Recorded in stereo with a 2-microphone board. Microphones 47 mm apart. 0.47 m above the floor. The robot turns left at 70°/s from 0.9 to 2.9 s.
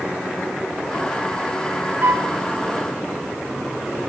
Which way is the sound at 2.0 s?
55° right (ahead or behind).